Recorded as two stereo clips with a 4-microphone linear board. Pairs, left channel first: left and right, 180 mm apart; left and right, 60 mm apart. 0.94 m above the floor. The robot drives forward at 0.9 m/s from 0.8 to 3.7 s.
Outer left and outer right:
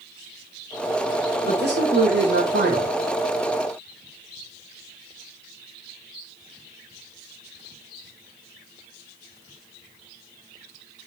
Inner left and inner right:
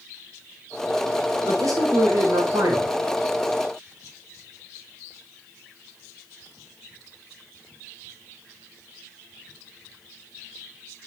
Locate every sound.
1.4 s a man speaking: 80° right, 4 m; by 2.9 s 70° right (ahead or behind), 4 m